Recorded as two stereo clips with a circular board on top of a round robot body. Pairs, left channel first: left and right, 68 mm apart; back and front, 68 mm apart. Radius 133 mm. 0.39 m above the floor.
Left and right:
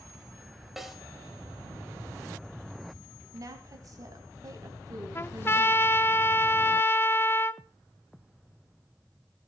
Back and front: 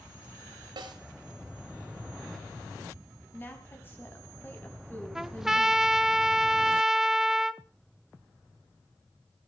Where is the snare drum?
5° right, 2.5 m.